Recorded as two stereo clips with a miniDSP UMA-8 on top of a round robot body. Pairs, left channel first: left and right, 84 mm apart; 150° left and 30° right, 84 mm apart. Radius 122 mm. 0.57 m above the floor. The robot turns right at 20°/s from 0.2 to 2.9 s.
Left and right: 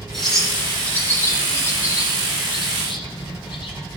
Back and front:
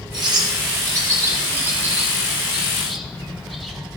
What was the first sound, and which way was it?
A bird, 5° left.